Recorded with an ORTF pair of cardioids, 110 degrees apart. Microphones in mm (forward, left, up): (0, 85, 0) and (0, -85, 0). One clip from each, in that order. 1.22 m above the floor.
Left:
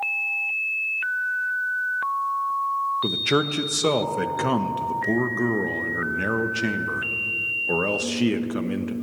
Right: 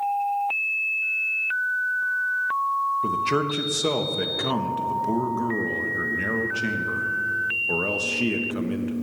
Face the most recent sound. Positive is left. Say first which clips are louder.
# left 1 dB
turn(degrees=20)